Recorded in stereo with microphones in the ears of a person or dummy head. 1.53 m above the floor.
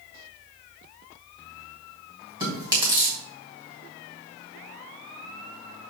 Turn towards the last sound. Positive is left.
turn(degrees=-25)  # may be behind; listen again after turning